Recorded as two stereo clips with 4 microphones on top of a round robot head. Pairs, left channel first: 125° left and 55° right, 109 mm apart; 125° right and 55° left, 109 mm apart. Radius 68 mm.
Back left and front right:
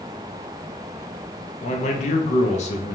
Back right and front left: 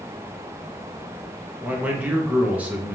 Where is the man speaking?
130° left, 0.7 m.